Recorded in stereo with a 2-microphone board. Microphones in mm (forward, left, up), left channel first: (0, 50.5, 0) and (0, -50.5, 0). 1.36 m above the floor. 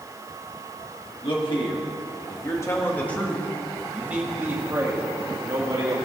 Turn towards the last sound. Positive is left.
turn(degrees=-40)  # may be behind; listen again after turning